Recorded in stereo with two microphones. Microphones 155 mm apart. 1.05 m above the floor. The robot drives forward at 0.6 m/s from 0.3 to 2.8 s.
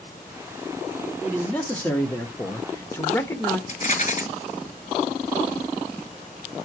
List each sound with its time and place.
1.2 s a man speaking: 10° left (ahead or behind), 1.2 m; by 3.6 s 20° left (ahead or behind), 0.8 m
3.7 s a rattle: 60° left (ahead or behind), 1.5 m